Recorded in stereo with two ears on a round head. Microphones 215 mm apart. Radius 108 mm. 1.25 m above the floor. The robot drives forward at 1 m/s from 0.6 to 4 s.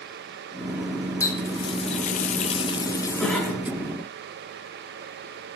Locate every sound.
1.2 s a running tap: 10° left (ahead or behind), 1.1 m
3.2 s a cough: 5° left (ahead or behind), 5.5 m